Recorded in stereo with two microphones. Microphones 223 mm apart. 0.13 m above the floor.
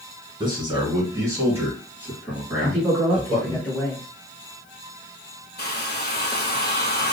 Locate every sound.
0.4 s a man speaking: 20° right (ahead or behind), 1.3 m; by 3.6 s centre (ahead or behind), 2 m
2.6 s a man speaking: 5° left (ahead or behind), 1.4 m
5.6 s a hair dryer: 45° left (ahead or behind), 0.6 m